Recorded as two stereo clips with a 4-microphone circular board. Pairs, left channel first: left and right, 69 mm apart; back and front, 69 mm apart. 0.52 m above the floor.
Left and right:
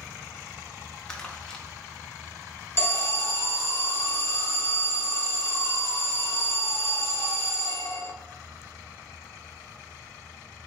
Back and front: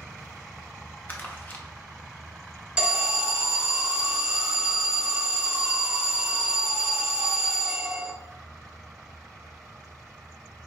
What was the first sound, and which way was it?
Crumpling, 160° left.